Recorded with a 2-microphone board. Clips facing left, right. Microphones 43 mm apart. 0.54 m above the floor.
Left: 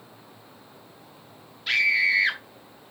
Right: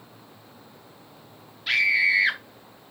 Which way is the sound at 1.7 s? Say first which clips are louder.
Right 1 dB; 5° right (ahead or behind).